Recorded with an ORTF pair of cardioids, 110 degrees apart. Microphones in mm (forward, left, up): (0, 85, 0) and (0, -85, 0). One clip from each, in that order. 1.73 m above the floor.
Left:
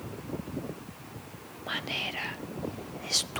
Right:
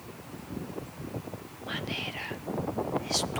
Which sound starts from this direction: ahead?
Whispering, at 1.7 s.